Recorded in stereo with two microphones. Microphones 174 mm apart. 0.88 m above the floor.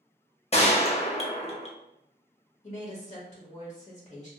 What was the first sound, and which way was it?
A gunshot, 35° left (ahead or behind).